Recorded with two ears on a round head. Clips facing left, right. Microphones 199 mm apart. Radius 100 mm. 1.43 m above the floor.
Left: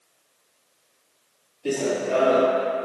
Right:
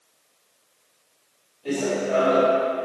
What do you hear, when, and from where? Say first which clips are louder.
1.6 s running footsteps: even; 50° left (ahead or behind), 2 m